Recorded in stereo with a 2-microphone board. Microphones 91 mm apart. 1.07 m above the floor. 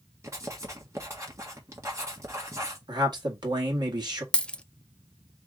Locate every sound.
0.2 s writing: 35° right (ahead or behind), 1.4 m
2.9 s a man speaking: 50° right (ahead or behind), 1.9 m
4.3 s a dropped coin: 10° left (ahead or behind), 0.5 m